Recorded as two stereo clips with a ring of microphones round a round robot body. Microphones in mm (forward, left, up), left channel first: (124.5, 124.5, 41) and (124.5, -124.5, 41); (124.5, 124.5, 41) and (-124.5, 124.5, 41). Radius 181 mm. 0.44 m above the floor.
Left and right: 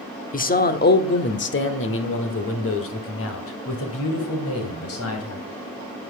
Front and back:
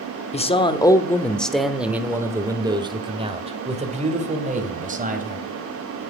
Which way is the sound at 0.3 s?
50° left.